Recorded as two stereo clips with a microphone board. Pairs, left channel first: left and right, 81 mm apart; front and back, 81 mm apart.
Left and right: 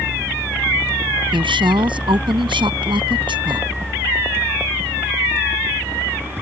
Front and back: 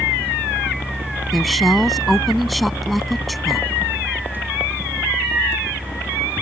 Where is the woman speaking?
90° right.